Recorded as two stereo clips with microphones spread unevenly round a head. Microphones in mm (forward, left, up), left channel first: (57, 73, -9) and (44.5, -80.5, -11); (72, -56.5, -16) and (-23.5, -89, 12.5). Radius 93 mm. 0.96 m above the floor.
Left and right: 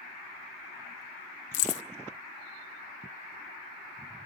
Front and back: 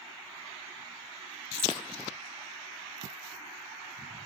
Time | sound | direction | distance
1.5 | keys jangling | 120° left | 0.7 m